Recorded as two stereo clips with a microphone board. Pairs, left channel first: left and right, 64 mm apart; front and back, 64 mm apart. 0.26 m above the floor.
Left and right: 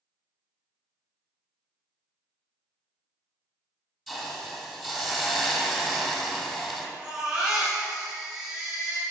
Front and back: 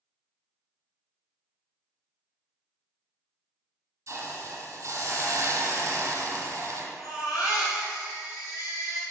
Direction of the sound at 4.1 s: Straight behind.